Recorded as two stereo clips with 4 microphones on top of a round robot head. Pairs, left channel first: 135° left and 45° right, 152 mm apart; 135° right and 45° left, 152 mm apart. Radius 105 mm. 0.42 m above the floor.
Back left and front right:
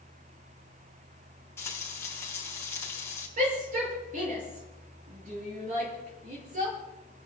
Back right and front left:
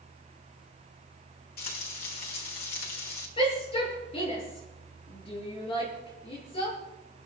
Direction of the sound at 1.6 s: 150° right.